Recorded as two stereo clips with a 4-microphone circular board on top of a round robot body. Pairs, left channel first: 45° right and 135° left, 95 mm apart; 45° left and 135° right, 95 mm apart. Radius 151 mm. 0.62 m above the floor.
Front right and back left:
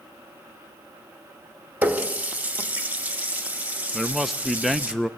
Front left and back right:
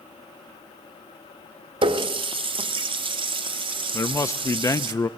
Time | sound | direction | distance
1.8 | a running tap | 150° right | 0.9 m
3.9 | a man speaking | 45° left | 0.7 m